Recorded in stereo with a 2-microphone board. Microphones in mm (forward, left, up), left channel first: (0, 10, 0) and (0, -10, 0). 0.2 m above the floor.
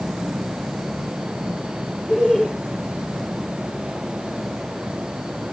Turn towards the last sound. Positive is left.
turn(degrees=45)  # may be behind; listen again after turning